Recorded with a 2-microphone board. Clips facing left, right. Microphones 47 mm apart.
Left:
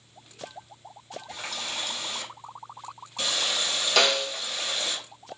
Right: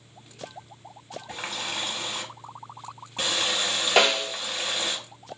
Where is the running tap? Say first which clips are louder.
Right 3 dB; 35° right (ahead or behind), 0.8 m.